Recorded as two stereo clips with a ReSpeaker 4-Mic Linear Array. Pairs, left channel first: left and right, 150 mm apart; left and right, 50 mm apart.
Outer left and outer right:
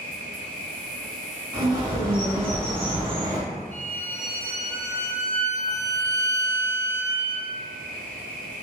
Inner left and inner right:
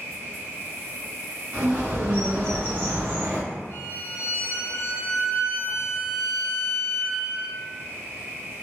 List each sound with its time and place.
0.0 s an insect: 70° right (ahead or behind), 0.9 m
1.5 s a bird: 35° right (ahead or behind), 1.8 m
3.7 s a violin: 50° left (ahead or behind), 0.7 m